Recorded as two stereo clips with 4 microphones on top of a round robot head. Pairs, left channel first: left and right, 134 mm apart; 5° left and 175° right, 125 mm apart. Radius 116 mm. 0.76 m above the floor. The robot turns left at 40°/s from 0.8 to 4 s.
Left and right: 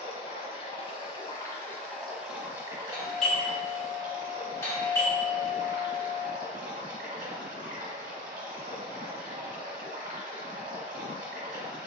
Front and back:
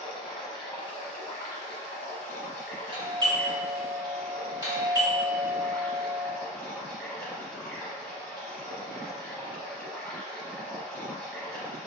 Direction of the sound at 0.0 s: 55° left.